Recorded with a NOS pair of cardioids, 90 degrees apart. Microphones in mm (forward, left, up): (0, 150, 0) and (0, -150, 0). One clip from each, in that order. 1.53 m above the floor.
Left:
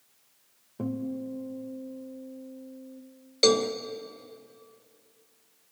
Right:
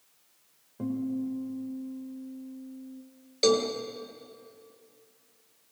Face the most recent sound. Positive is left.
turn(degrees=20)